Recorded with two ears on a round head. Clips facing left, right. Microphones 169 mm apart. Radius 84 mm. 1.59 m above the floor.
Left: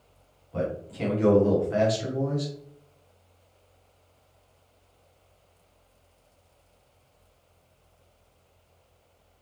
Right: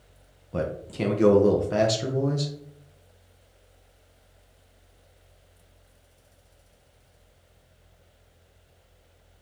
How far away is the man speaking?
About 0.8 m.